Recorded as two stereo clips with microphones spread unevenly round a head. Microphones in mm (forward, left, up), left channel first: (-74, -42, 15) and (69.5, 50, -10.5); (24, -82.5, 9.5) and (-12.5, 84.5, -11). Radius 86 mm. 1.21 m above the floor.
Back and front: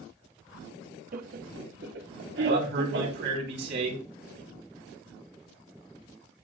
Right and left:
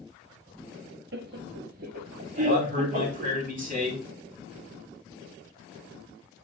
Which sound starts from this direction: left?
Laughter, at 1.1 s.